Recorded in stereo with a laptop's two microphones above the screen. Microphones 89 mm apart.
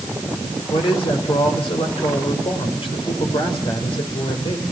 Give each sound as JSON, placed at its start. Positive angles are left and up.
{"t": 0.7, "sound": "a man speaking", "side_deg": 80, "distance_m": 4.0}